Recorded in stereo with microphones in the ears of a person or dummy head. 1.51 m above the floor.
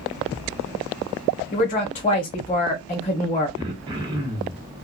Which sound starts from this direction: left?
A woman speaking, at 1.5 s.